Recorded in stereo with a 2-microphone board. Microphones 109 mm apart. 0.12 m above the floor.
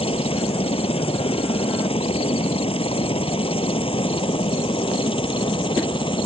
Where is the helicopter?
60° left (ahead or behind); by 6.3 s 50° left (ahead or behind).